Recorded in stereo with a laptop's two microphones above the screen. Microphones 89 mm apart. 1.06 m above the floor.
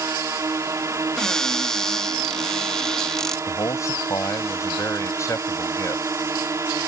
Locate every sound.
0.0 s a drone: 30° right (ahead or behind)
1.2 s a cupboard door: 5° left (ahead or behind)
3.5 s a man speaking: 30° left (ahead or behind)